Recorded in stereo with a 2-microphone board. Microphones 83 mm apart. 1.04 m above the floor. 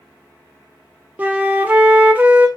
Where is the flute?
20° right (ahead or behind), 0.6 m.